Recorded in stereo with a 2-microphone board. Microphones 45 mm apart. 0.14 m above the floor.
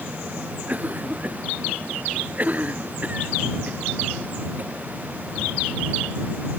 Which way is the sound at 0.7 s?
35° right (ahead or behind).